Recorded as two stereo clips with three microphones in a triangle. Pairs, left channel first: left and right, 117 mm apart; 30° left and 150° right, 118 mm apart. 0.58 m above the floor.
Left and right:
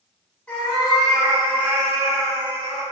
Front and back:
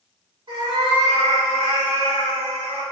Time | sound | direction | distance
0.5 | a cat meowing | 165° left | 1.2 m